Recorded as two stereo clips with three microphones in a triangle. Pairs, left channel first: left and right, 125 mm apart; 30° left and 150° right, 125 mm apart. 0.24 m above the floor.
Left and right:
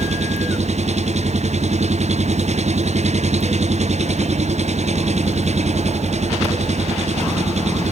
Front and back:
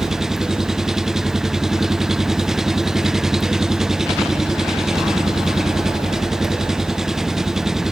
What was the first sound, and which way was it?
An engine running, 65° right.